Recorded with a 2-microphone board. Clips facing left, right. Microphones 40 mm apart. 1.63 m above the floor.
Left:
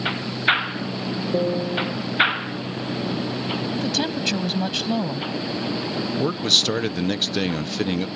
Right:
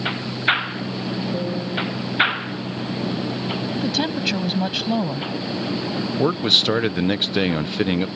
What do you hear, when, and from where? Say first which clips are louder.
1.3 s a piano: left 3 dB; 40° left (ahead or behind)
3.8 s a woman speaking: right 3 dB; 10° right (ahead or behind)
6.2 s a man speaking: right 3 dB; 20° right (ahead or behind)